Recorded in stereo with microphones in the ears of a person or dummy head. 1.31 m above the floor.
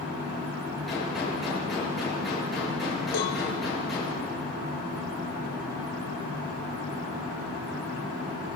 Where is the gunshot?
Centre (ahead or behind), 8.5 m.